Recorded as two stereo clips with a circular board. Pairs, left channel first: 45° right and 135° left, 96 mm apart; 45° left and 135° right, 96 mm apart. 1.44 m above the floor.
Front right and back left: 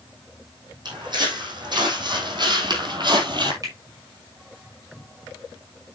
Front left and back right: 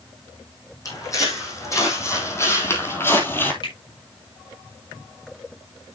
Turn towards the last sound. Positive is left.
turn(degrees=80)